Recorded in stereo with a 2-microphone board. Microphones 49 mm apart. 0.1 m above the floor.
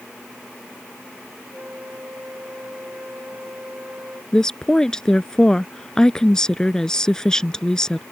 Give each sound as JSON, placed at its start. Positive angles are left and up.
{"t": 1.5, "sound": "a flute", "side_deg": -40}
{"t": 4.3, "sound": "a woman speaking", "side_deg": 15}